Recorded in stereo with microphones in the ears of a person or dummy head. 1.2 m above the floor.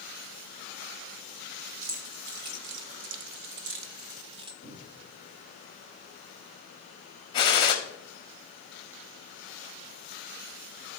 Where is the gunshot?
30° left (ahead or behind), 1.0 m.